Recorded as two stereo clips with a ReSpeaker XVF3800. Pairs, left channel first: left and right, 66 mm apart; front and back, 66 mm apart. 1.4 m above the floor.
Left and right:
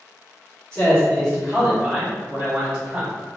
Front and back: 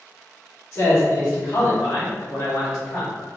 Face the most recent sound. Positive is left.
turn(degrees=-25)